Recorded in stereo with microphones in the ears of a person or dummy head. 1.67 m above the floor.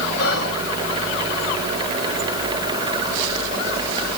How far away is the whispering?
About 1.3 m.